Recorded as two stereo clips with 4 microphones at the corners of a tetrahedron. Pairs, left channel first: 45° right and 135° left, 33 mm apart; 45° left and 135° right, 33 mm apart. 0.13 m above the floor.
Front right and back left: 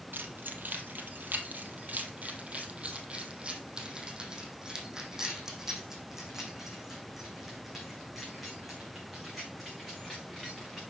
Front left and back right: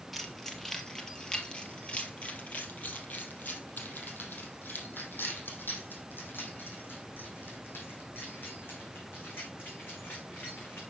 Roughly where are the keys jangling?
Behind left.